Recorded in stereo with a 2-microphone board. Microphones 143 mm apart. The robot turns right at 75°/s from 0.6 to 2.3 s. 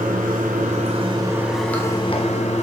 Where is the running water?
75° right, 1.3 m; by 2.6 s 55° left, 1.3 m.